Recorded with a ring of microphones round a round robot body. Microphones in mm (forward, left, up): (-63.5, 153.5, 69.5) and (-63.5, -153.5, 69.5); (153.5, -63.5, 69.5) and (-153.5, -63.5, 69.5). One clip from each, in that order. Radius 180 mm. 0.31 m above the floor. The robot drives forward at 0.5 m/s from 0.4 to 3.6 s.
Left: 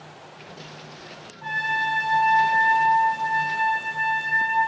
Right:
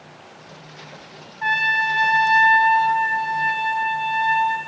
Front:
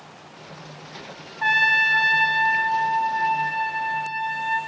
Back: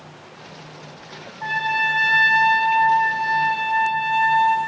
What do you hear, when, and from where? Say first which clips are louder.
1.4 s a trumpet: right 5 dB, front 3 dB; 60° right, 0.6 m; by 4.6 s 145° right, 1.0 m